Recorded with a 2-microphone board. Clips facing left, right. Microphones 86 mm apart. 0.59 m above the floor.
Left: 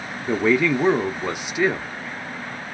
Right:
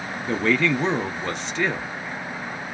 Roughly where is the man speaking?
Centre.